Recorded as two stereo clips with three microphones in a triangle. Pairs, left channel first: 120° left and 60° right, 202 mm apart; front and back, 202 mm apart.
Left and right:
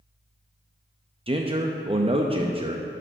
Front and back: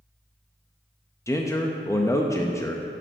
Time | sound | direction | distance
1.3 | a man speaking | 60° right | 0.6 m